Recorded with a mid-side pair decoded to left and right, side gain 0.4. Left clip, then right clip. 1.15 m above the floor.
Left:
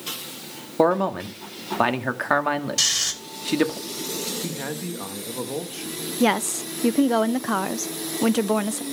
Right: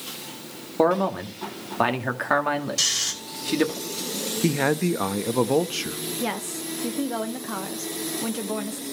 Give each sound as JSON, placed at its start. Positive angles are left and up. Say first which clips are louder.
{"t": 0.8, "sound": "a man speaking", "louder": "left 1 dB", "azimuth_deg": 15, "distance_m": 2.0}
{"t": 2.8, "sound": "snoring", "louder": "left 3 dB", "azimuth_deg": 30, "distance_m": 3.5}
{"t": 4.4, "sound": "a man speaking", "louder": "right 8 dB", "azimuth_deg": -70, "distance_m": 1.0}
{"t": 6.2, "sound": "a woman speaking", "louder": "left 11 dB", "azimuth_deg": 65, "distance_m": 0.7}